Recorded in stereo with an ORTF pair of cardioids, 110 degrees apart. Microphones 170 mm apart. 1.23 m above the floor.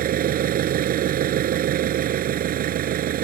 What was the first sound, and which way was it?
An engine running, 60° right.